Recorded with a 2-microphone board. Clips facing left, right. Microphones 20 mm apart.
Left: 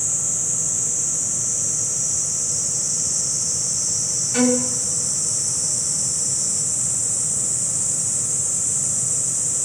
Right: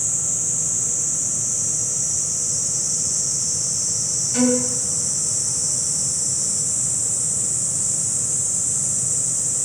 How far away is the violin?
About 1.2 m.